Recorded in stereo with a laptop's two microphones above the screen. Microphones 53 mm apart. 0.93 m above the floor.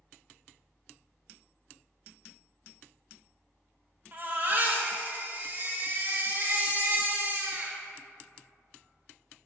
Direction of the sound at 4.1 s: 35° right (ahead or behind).